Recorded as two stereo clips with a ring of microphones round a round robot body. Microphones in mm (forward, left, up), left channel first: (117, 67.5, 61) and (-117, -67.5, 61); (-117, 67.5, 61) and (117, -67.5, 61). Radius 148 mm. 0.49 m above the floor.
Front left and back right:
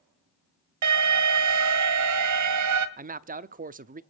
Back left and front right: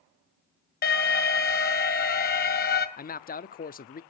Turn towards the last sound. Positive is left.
turn(degrees=180)